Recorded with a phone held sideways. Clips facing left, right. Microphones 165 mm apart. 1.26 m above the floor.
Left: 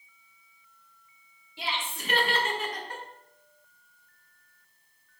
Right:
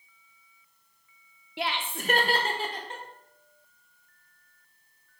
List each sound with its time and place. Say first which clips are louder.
1.6 s laughter: right 3 dB; 70° right (ahead or behind), 0.7 m; by 3.0 s 20° right (ahead or behind), 1.1 m